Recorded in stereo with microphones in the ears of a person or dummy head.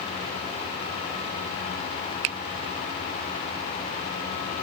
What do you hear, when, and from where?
2.2 s a finger snap: 30° right (ahead or behind)